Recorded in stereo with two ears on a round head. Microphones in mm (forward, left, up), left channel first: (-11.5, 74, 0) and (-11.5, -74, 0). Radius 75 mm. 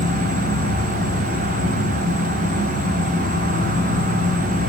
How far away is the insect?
About 4 m.